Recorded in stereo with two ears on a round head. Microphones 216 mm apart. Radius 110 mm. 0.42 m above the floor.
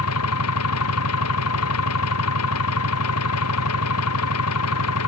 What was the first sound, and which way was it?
An engine running, 65° left (ahead or behind).